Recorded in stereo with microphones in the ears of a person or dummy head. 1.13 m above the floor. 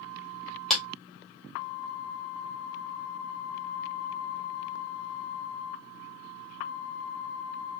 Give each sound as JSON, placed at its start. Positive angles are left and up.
{"t": 0.7, "sound": "a clap", "side_deg": 0, "distance_m": 2.0}